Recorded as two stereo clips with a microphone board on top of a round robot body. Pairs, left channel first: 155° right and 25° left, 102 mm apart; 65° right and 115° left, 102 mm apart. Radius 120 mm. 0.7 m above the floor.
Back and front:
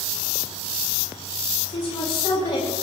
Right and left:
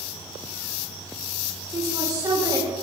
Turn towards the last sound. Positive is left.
turn(degrees=170)